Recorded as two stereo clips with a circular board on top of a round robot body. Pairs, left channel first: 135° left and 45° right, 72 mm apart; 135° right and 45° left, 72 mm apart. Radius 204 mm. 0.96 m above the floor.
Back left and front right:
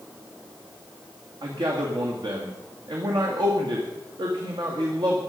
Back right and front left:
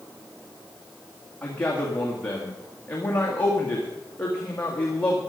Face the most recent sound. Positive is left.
turn(degrees=-65)